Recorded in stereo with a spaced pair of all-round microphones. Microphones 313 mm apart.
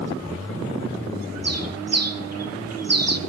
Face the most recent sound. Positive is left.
turn(degrees=-55)  # may be behind; listen again after turning